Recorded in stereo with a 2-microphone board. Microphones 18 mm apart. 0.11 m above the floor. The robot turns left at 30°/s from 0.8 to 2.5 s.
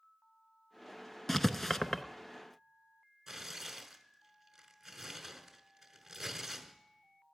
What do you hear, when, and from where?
1.3 s writing: 20° left (ahead or behind), 0.6 m; by 2.0 s 30° left (ahead or behind), 0.6 m
3.3 s tearing paper: 15° right (ahead or behind), 1.2 m